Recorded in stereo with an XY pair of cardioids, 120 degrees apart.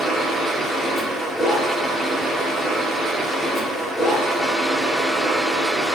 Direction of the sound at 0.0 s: 5° left.